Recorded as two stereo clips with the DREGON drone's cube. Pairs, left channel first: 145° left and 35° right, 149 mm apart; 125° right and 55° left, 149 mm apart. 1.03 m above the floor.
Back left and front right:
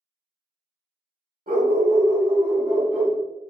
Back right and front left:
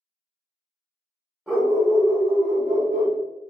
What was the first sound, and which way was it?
A dog barking, 35° right.